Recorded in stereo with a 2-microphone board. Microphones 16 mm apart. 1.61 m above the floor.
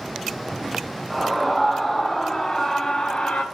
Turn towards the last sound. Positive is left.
turn(degrees=75)  # may be behind; listen again after turning